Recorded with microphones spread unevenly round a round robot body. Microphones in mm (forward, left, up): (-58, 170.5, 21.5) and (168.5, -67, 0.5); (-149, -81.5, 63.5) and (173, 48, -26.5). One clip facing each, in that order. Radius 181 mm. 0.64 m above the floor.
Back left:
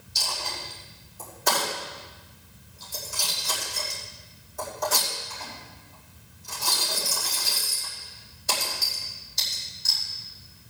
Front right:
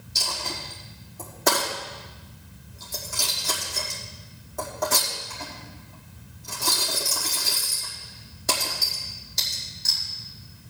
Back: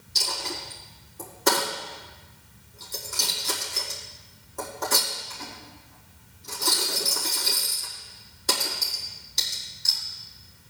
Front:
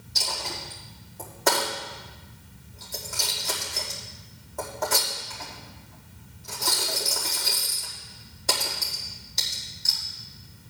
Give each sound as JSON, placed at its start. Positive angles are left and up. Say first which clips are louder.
{"t": 0.1, "sound": "a dropped coin", "louder": "front right 3 dB, back 2 dB", "azimuth_deg": -90, "distance_m": 5.0}